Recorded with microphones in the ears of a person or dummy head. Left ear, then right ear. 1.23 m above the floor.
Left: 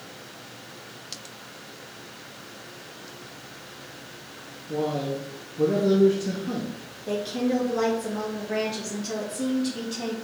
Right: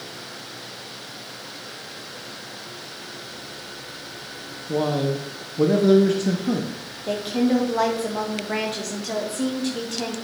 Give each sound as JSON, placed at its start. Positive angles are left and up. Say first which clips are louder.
{"t": 4.7, "sound": "a man speaking", "louder": "right 4 dB", "side_deg": -30, "distance_m": 0.7}
{"t": 7.1, "sound": "a woman speaking", "louder": "right 4 dB", "side_deg": -20, "distance_m": 1.7}